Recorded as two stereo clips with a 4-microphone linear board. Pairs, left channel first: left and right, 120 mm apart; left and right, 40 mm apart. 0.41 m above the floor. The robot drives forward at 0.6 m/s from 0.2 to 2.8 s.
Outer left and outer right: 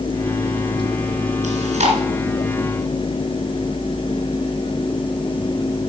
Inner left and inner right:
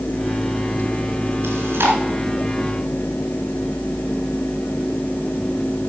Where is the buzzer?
No buzzer in this recording.